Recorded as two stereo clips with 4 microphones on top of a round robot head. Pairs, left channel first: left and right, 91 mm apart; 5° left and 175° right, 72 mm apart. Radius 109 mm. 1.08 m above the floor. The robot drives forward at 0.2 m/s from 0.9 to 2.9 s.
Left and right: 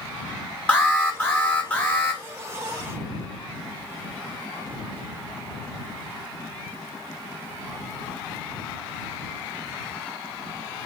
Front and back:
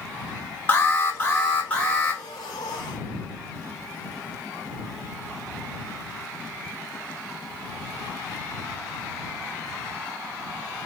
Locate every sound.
0.7 s an alarm: 35° left, 1.2 m; by 2.2 s 50° left, 1.2 m